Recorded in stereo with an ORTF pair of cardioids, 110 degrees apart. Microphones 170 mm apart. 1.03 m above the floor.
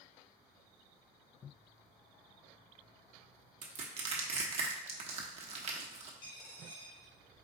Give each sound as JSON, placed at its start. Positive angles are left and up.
{"t": 3.6, "sound": "crushing", "azimuth_deg": -40, "distance_m": 0.9}
{"t": 6.2, "sound": "a dropped coin", "azimuth_deg": 60, "distance_m": 1.5}